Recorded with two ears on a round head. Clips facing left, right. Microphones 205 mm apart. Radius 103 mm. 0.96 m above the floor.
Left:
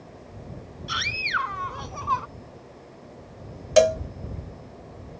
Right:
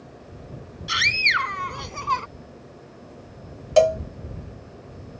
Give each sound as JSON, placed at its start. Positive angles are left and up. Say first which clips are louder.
{"t": 0.9, "sound": "a scream", "louder": "right 2 dB", "side_deg": -30}
{"t": 3.8, "sound": "a cowbell", "louder": "right 1 dB", "side_deg": 25}